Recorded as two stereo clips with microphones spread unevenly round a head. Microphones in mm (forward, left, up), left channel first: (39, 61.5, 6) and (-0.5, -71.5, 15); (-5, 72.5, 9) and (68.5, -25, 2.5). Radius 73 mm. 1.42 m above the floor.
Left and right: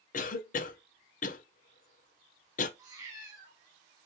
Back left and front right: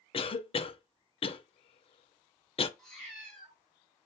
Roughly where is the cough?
Left.